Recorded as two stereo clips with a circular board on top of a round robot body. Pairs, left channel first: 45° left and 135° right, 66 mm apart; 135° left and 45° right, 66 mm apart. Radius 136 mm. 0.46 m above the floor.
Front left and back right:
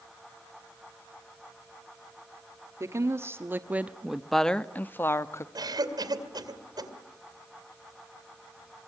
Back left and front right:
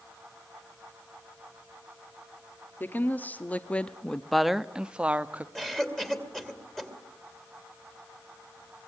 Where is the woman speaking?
170° right, 1.4 m; by 5.5 s 15° left, 1.2 m.